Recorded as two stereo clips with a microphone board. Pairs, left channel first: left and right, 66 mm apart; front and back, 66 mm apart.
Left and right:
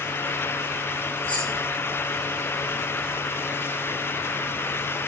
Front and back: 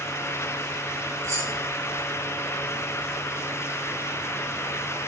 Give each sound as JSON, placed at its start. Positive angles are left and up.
{"t": 1.2, "sound": "keys jangling", "azimuth_deg": 155, "distance_m": 6.5}